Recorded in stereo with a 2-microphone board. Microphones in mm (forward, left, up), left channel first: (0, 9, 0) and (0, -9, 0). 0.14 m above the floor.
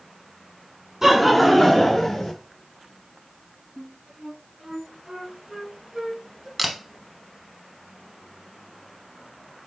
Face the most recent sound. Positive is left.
turn(degrees=0)  # may be behind; listen again after turning